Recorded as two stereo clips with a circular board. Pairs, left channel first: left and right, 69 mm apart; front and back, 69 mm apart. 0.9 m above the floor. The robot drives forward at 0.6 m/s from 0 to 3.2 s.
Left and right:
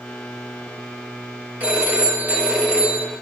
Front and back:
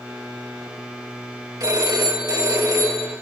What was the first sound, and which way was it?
A phone ringing, 160° right.